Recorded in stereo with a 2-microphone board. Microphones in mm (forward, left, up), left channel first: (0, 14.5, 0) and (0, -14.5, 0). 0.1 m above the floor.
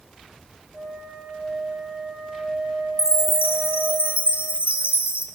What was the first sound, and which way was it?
A flute, 60° right (ahead or behind).